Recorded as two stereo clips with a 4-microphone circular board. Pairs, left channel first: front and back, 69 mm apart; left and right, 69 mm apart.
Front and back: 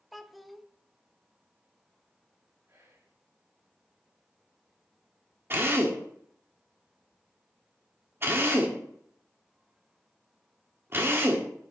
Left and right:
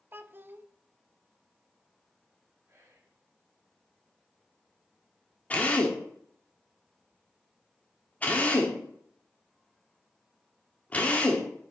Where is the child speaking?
90° right, 0.6 m.